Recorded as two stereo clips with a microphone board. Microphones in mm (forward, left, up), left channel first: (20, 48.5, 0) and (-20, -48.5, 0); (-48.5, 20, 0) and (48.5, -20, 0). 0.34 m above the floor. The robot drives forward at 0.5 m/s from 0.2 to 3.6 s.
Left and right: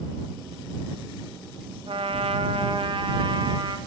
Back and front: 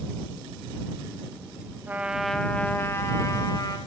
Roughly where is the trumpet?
Right.